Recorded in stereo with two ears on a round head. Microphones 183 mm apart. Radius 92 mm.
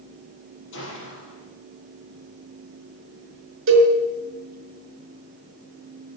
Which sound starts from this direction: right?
A cowbell, at 3.7 s.